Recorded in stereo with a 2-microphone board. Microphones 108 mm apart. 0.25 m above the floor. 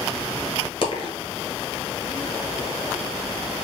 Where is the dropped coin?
50° left (ahead or behind), 1.2 m.